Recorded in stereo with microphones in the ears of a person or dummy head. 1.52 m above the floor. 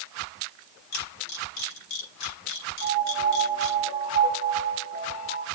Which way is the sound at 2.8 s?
55° left (ahead or behind).